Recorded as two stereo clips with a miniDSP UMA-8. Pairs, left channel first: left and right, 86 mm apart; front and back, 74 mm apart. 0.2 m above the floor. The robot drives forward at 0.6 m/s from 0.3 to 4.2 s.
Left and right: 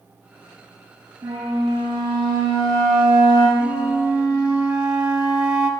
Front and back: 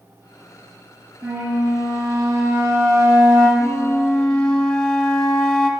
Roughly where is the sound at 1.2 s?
Behind right.